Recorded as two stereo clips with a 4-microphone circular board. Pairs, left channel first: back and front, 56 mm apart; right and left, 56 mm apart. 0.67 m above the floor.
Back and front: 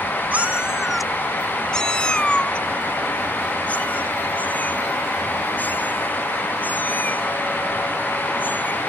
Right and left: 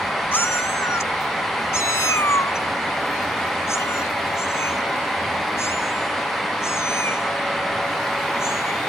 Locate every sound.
0.3 s a cat meowing: 55° right; by 8.8 s 125° right